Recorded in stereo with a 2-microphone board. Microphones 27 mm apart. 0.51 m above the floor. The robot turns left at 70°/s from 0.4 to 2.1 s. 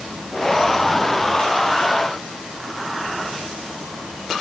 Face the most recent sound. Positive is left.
No sound to turn to.